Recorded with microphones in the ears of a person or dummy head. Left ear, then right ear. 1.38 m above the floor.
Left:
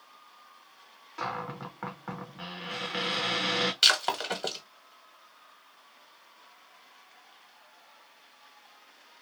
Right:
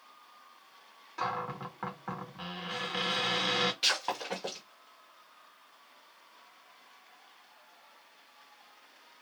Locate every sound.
1.2 s a cupboard door: centre (ahead or behind), 0.8 m
3.8 s breaking glass: 45° left (ahead or behind), 1.1 m